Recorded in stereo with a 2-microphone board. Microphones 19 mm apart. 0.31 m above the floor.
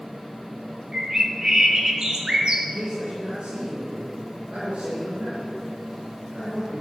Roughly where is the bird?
Right.